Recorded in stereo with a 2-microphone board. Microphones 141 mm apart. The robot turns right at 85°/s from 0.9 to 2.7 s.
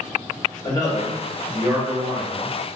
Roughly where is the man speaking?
Behind left.